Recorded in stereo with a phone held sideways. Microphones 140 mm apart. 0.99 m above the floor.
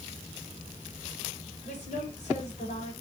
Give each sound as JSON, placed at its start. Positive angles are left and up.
{"t": 1.6, "sound": "a woman speaking", "side_deg": 70, "distance_m": 4.5}